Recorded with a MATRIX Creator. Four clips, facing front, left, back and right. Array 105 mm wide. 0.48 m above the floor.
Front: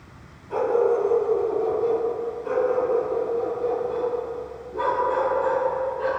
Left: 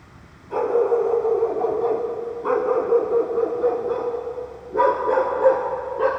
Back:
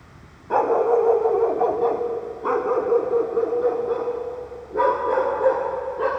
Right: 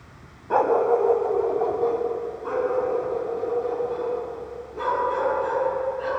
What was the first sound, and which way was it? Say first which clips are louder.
A dog barking: even, back 2 dB; 135° right.